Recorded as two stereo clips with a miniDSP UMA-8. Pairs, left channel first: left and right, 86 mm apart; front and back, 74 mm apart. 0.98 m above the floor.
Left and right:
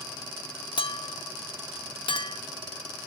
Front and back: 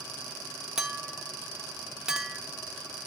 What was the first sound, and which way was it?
A clink, 100° left.